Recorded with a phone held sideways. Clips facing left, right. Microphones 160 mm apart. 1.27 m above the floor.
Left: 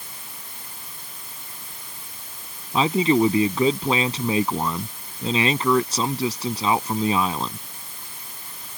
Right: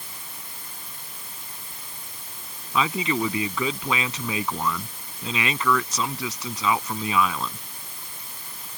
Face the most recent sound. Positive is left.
turn(degrees=30)  # may be behind; listen again after turning